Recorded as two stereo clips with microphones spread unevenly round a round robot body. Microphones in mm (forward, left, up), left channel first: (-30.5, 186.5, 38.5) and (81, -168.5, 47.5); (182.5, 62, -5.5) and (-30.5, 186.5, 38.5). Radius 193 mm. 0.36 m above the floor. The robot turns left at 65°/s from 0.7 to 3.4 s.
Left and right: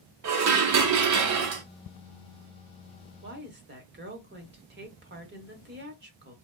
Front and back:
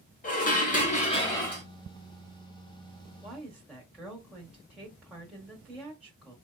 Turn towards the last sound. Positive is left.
turn(degrees=-110)